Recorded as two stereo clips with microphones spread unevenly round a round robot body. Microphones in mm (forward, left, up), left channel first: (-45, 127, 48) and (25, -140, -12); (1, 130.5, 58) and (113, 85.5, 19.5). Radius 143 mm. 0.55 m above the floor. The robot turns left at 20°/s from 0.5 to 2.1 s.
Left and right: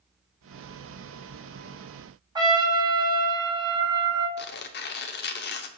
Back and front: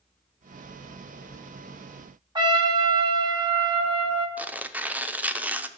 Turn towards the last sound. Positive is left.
turn(degrees=45)